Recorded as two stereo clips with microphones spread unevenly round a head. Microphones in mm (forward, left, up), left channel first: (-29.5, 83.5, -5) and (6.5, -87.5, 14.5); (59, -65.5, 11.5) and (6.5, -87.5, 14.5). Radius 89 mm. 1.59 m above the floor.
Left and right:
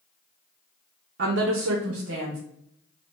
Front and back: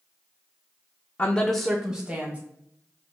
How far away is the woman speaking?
About 0.5 m.